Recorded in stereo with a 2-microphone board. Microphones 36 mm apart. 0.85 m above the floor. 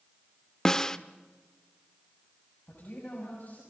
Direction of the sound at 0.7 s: 20° left (ahead or behind).